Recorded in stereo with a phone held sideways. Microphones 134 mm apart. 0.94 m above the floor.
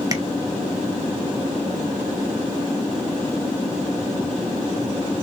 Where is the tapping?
25° right (ahead or behind), 0.8 m.